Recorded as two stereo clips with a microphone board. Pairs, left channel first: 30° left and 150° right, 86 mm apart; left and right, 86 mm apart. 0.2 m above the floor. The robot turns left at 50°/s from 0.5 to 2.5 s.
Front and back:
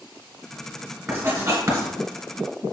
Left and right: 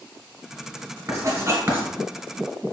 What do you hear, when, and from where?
1.1 s writing: 105° right, 1.7 m; by 1.9 s 145° right, 1.7 m